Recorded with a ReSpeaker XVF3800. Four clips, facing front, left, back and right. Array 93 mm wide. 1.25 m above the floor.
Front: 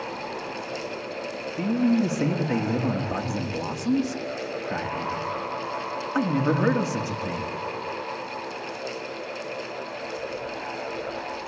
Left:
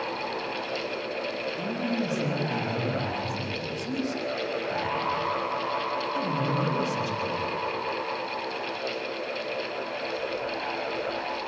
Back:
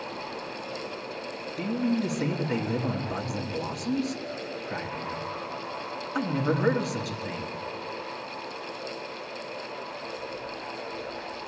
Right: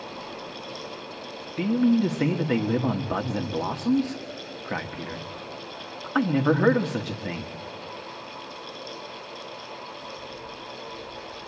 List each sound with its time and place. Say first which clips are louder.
1.6 s a man speaking: right 11 dB, front 5 dB; 65° right, 1.5 m